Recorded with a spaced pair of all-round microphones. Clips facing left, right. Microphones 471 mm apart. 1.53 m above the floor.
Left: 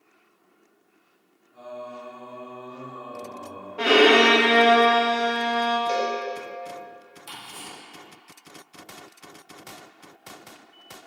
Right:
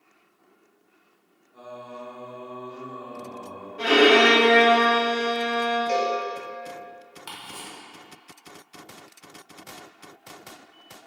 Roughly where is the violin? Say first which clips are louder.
Even; left.